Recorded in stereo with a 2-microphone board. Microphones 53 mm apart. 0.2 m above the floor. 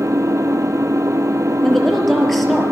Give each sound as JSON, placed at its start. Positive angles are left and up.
{"t": 0.0, "sound": "an engine running", "side_deg": -75, "distance_m": 1.7}
{"t": 1.6, "sound": "a woman speaking", "side_deg": 5, "distance_m": 5.0}